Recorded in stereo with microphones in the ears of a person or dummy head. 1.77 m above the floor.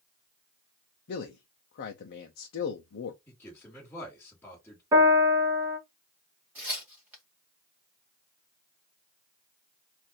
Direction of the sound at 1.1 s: 50° left (ahead or behind).